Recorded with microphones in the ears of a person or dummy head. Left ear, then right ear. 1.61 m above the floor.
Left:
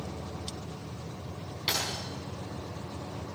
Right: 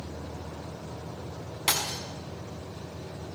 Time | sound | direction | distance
1.7 | breaking glass | 35° right (ahead or behind) | 5.5 m